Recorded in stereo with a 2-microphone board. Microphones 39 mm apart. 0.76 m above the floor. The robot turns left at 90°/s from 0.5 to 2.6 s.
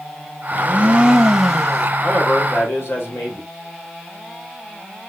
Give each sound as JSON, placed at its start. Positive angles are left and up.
{"t": 0.5, "sound": "a blender", "azimuth_deg": -90, "distance_m": 1.0}
{"t": 2.0, "sound": "a man speaking", "azimuth_deg": 145, "distance_m": 2.5}